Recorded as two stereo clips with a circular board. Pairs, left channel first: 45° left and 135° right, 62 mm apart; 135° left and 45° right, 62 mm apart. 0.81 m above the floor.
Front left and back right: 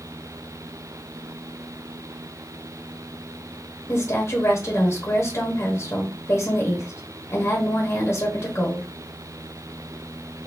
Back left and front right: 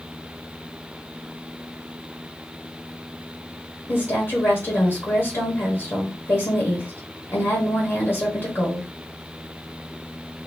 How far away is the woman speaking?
About 1.2 m.